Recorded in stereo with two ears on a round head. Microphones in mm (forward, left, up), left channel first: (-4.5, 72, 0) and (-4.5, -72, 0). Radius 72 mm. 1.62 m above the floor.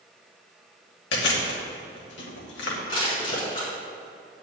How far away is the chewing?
About 2.5 m.